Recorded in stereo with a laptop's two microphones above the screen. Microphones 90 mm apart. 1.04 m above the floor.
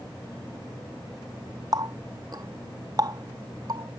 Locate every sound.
1.7 s a running tap: 45° right (ahead or behind)